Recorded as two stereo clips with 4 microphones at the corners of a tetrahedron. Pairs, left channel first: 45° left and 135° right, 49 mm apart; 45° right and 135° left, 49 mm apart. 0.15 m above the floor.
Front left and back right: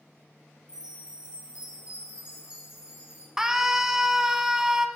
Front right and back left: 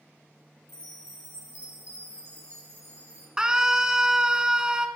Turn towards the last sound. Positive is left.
turn(degrees=170)